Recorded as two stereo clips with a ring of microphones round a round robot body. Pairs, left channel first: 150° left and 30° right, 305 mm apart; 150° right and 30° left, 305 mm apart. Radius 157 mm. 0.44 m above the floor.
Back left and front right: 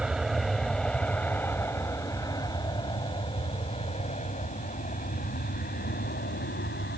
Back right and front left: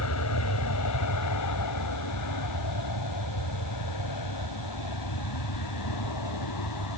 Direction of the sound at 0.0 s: 120° right.